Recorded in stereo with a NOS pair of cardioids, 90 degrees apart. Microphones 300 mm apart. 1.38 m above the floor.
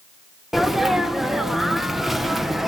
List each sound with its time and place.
0.5 s a sneeze: straight ahead, 0.6 m